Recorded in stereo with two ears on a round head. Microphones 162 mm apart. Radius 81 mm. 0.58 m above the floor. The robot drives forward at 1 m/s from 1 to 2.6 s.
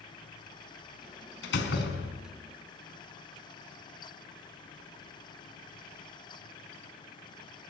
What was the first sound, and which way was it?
A door slam, 70° left (ahead or behind).